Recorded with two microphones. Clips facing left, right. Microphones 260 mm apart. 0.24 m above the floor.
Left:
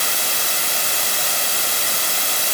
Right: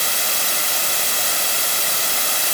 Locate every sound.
Only background noise.